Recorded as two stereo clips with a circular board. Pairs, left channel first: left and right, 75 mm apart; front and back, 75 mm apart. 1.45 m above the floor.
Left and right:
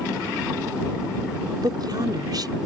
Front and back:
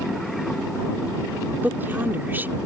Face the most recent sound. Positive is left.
turn(degrees=-115)